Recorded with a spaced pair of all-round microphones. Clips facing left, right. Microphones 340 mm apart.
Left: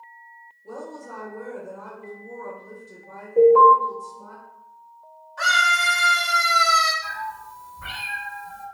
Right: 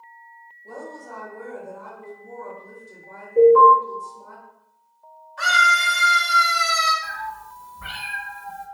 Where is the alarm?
5° right (ahead or behind), 1.9 m.